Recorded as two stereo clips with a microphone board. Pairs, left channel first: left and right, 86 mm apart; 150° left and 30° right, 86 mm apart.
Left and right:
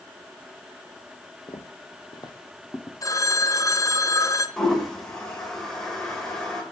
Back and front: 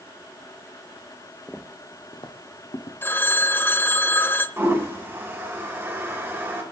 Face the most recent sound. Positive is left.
turn(degrees=10)